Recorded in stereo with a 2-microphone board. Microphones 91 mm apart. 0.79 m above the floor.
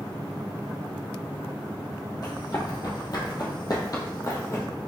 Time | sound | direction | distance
2.2 | running footsteps | 45° left (ahead or behind) | 1.3 m